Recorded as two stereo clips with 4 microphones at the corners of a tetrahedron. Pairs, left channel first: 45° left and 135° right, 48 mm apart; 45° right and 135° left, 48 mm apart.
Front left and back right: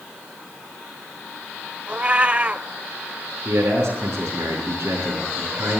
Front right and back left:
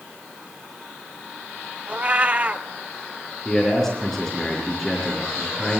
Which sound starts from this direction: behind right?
A man speaking, at 3.5 s.